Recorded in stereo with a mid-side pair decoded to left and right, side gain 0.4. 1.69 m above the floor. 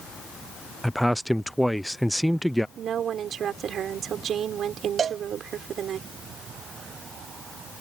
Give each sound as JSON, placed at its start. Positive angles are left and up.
{"t": 0.8, "sound": "a man speaking", "azimuth_deg": 0}
{"t": 2.8, "sound": "a woman speaking", "azimuth_deg": -65}
{"t": 5.0, "sound": "a cowbell", "azimuth_deg": -55}